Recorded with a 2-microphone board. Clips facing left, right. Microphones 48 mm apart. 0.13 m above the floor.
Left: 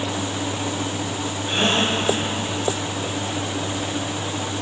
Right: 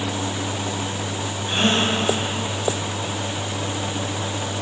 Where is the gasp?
5° right (ahead or behind), 2 m.